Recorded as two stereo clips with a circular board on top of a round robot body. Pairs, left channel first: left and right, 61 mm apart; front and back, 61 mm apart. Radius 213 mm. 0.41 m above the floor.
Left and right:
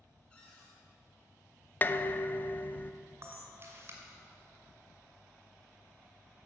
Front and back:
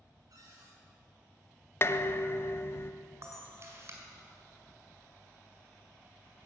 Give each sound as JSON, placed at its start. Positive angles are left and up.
{"t": 0.3, "sound": "a cupboard door", "azimuth_deg": 160, "distance_m": 6.0}
{"t": 1.8, "sound": "dishes clattering", "azimuth_deg": 35, "distance_m": 0.8}
{"t": 3.2, "sound": "a camera shutter", "azimuth_deg": -140, "distance_m": 2.5}